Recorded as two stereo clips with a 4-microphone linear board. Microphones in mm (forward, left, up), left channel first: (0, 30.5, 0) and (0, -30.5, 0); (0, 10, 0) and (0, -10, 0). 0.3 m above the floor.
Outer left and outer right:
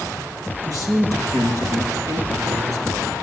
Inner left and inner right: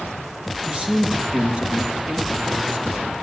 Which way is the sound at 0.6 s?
60° right (ahead or behind).